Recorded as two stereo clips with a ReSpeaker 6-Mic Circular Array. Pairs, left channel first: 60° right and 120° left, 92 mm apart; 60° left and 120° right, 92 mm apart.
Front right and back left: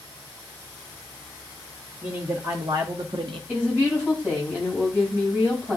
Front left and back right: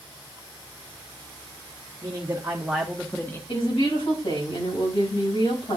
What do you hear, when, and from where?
2.0 s a man speaking: 175° left, 1.3 m; by 3.4 s 125° left, 1.0 m
3.5 s a woman speaking: 50° left, 5.5 m